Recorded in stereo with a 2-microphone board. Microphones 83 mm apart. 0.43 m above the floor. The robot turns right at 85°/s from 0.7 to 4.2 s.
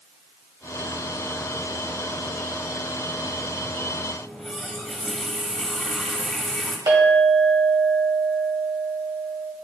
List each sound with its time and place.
4.2 s a running tap: 5° left (ahead or behind), 1.4 m
6.9 s a clink: 60° right (ahead or behind), 1.8 m